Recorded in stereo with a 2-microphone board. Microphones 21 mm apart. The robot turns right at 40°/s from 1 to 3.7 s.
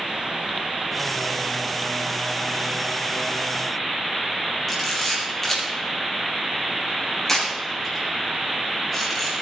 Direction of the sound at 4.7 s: 15° left (ahead or behind).